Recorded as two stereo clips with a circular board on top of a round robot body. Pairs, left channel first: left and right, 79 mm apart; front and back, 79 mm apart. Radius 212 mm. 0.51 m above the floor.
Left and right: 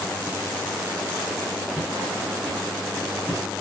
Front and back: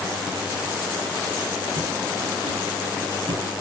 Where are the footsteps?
165° right, 5.5 m; by 3.6 s 170° right, 6.5 m.